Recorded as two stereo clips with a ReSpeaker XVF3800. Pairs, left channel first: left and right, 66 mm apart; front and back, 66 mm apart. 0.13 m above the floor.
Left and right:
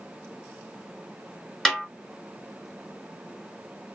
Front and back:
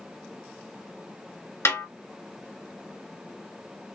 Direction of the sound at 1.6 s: 10° left.